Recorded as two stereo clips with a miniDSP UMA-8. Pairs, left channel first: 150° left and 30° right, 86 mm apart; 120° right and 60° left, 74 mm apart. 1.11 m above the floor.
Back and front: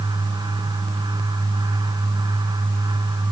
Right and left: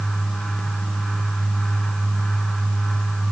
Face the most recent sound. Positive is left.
No sound to turn to.